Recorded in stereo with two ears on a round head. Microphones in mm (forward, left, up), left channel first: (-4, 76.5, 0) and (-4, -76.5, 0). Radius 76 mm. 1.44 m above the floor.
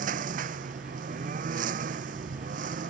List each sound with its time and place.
0.0 s a lawn mower: 50° right (ahead or behind)